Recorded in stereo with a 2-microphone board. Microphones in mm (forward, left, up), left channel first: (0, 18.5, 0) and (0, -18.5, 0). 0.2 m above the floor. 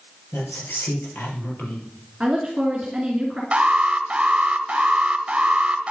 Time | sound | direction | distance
0.3 | a woman speaking | 60° left (ahead or behind) | 4 m
2.2 | a woman speaking | 20° right (ahead or behind) | 2.5 m
3.5 | an alarm | 30° right (ahead or behind) | 1.1 m